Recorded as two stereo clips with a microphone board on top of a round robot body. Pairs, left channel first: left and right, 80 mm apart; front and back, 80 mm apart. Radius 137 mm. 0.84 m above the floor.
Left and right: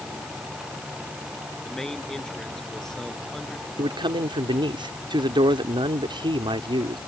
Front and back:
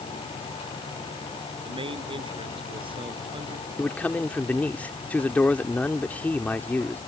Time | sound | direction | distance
1.6 | a man speaking | 175° left | ?
3.8 | a man speaking | 70° right | ?